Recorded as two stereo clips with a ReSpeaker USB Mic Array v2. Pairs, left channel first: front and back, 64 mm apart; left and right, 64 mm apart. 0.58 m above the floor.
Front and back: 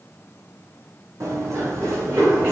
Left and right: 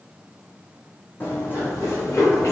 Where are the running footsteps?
145° left, 1.3 m; by 2.5 s 130° left, 1.9 m.